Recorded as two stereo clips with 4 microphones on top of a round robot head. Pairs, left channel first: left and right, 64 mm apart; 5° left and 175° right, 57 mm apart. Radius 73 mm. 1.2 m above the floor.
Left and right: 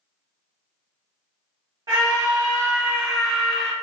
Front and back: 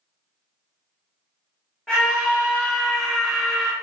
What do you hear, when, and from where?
1.9 s a scream: 75° right, 1.3 m; by 3.7 s 15° left, 1.5 m